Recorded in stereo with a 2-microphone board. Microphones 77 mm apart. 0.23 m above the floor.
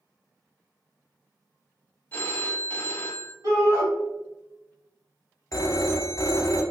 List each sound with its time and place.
2.1 s a phone ringing: 25° left (ahead or behind), 0.5 m
3.4 s a shout: 45° right (ahead or behind), 1.3 m
5.5 s a phone ringing: 45° left (ahead or behind), 0.7 m